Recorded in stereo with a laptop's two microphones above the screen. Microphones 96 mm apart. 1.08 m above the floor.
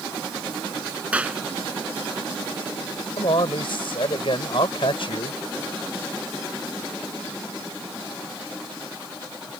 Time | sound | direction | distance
1.1 | a clap | 15° right (ahead or behind) | ?
3.2 | a man speaking | 65° left (ahead or behind) | ?